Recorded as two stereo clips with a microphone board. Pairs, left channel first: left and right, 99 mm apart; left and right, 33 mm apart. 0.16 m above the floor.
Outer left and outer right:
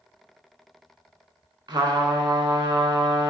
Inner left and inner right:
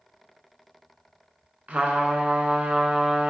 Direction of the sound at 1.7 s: 45° right (ahead or behind).